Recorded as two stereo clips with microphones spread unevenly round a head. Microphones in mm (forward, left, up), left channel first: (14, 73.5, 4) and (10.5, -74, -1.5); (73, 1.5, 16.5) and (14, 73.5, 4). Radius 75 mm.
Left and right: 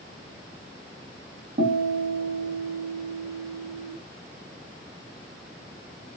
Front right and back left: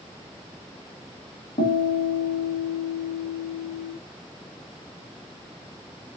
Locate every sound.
1.6 s a guitar: 55° right, 1.6 m